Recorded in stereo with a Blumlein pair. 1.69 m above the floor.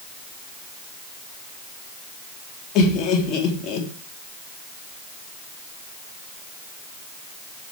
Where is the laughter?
35° left, 3.5 m.